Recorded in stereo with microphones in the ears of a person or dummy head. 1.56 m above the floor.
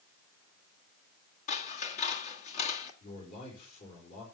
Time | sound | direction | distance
1.5 | scissors | 40° left (ahead or behind) | 1.7 m
3.0 | a man speaking | 50° left (ahead or behind) | 4.5 m